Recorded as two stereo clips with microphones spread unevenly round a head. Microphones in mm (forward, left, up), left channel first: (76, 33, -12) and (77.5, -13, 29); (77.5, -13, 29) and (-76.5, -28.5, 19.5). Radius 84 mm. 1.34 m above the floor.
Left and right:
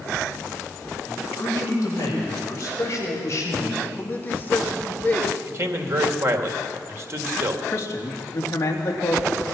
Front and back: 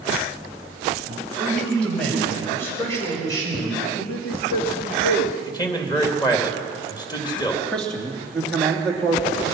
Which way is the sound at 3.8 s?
45° left.